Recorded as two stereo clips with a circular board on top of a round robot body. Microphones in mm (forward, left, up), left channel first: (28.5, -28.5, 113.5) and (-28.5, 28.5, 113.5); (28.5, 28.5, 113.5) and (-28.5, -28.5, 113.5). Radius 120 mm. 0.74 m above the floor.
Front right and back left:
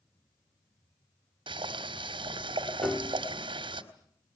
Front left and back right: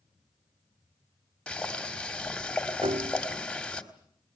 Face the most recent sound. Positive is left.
turn(degrees=-130)